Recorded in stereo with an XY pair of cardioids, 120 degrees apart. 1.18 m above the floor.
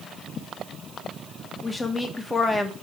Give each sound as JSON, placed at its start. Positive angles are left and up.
{"t": 1.6, "sound": "a woman speaking", "azimuth_deg": 20, "distance_m": 1.2}